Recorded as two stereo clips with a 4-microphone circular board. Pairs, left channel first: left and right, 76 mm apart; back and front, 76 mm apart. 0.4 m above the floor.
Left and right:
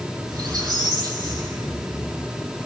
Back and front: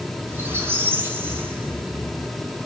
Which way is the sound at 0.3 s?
60° right.